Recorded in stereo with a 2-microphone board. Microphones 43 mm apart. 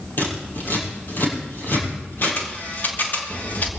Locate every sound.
0.2 s scissors: 55° left (ahead or behind), 7 m
2.2 s a camera shutter: 55° left (ahead or behind), 2.5 m